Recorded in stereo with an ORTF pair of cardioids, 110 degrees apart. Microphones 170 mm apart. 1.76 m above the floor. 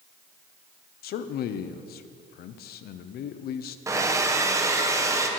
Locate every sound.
1.0 s a man speaking: 65° left, 1.0 m
3.9 s a hair dryer: 20° right, 1.6 m